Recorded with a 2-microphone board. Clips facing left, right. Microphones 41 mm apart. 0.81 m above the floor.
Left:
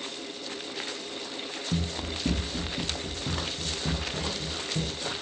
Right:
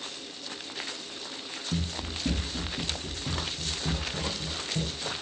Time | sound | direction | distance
1.7 | running footsteps | 40° left (ahead or behind) | 0.9 m